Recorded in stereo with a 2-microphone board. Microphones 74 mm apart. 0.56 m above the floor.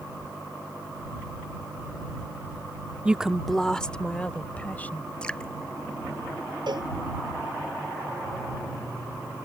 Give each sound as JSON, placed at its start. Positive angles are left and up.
{"t": 3.0, "sound": "a woman speaking", "side_deg": -15}
{"t": 5.2, "sound": "dripping", "side_deg": 15}
{"t": 6.7, "sound": "a cowbell", "side_deg": -70}